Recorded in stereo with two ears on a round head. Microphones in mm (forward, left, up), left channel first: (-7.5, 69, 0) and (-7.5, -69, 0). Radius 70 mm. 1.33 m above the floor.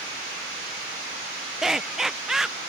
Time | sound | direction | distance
1.6 | laughter | 5° right (ahead or behind) | ?